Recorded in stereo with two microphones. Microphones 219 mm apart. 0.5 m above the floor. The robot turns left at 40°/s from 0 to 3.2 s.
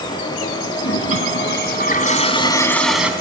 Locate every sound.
0.8 s a toilet flushing: 85° left, 1.8 m; by 3.1 s 5° right, 1.8 m